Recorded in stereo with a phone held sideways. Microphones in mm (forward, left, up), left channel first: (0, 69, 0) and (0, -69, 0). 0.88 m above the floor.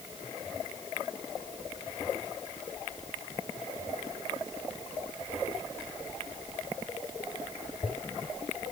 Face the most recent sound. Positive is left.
No sound to turn to.